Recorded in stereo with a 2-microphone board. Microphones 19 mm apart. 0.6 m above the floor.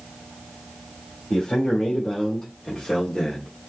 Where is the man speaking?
65° left (ahead or behind), 1.9 m; by 3.5 s 40° left (ahead or behind), 1.4 m.